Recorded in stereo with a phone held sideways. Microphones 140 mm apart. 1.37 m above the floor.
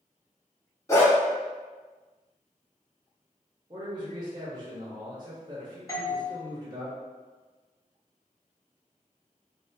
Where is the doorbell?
25° left (ahead or behind), 0.5 m.